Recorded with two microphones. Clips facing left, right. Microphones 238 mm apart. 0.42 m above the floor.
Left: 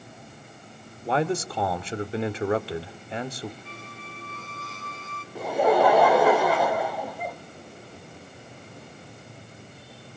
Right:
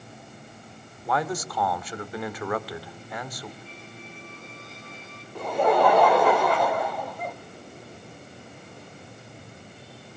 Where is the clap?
No clap in this recording.